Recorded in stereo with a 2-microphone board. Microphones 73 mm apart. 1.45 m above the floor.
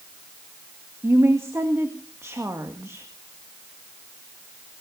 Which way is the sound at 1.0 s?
35° right (ahead or behind).